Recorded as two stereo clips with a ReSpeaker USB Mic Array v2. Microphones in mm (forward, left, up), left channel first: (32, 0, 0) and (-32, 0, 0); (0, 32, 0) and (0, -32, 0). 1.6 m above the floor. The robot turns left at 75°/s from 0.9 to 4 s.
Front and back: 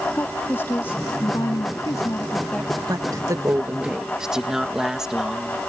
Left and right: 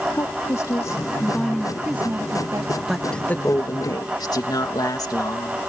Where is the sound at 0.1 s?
55° left; by 2.8 s 85° right.